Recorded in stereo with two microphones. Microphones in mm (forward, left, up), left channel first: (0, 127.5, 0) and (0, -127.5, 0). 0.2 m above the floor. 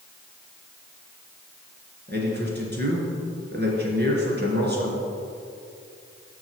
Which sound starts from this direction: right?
A man speaking, at 2.1 s.